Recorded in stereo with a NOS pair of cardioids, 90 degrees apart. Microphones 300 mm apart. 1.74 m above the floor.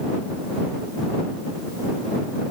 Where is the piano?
No piano in this recording.